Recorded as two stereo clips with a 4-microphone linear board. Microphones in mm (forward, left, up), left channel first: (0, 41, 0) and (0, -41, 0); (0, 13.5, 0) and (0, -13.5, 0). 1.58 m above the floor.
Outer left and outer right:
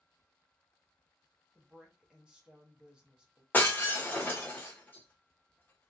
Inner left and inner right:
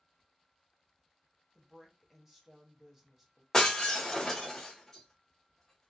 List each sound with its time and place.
1.6 s a woman speaking: 10° right (ahead or behind), 0.8 m
3.5 s breaking glass: 25° left (ahead or behind), 0.9 m